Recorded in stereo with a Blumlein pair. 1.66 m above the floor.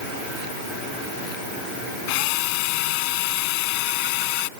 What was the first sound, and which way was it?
A drill, 45° left.